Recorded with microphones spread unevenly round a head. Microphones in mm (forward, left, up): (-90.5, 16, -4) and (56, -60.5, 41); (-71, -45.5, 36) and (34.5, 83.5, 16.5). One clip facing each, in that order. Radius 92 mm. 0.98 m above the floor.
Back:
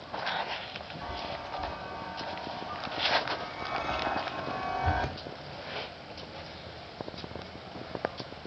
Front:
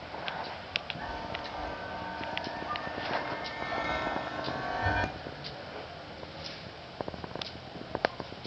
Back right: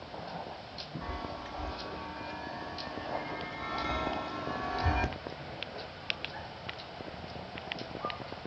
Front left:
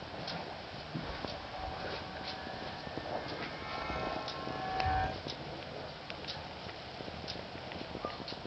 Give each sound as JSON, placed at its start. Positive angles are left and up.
{"t": 1.0, "sound": "a chime", "azimuth_deg": -100, "distance_m": 1.8}